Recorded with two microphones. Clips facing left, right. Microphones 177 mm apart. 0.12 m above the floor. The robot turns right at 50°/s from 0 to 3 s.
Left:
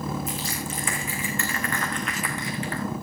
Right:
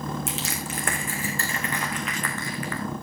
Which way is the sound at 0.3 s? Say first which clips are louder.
Left 1 dB; 85° right.